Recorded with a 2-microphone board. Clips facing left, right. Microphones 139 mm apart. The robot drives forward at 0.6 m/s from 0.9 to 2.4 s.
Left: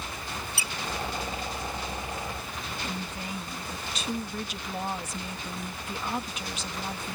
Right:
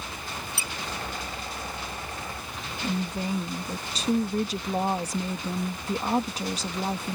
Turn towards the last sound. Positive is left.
turn(degrees=-35)  # may be behind; listen again after turning